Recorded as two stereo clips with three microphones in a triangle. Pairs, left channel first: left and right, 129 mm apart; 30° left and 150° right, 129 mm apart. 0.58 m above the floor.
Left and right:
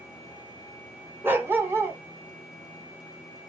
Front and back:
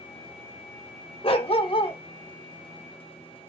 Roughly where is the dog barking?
Ahead.